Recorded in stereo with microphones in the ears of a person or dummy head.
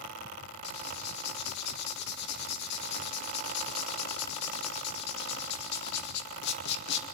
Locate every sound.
0.6 s writing: 55° left (ahead or behind), 2 m